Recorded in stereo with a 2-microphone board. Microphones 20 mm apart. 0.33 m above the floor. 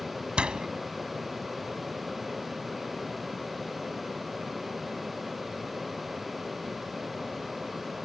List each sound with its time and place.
0.4 s a door slam: 65° right (ahead or behind)